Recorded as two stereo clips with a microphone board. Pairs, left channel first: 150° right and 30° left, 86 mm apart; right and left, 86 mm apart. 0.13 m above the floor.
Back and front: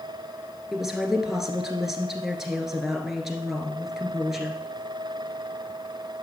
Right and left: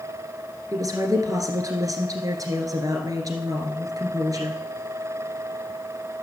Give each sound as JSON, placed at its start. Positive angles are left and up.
{"t": 0.7, "sound": "a woman speaking", "azimuth_deg": 110, "distance_m": 2.0}